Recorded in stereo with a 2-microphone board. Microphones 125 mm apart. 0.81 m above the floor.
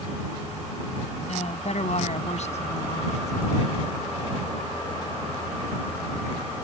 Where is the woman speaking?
65° left (ahead or behind).